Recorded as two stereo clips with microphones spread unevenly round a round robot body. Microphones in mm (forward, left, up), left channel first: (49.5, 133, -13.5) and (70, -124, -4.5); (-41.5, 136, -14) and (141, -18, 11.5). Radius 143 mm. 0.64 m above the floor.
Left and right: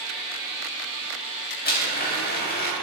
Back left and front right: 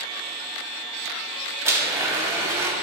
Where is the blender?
40° left, 3.5 m.